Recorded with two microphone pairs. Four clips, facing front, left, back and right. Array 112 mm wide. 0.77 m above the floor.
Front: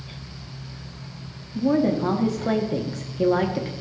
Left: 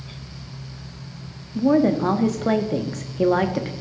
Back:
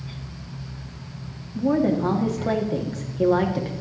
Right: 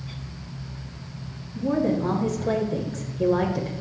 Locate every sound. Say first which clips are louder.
1.6 s a woman speaking: left 6 dB, even; 95° left, 1.1 m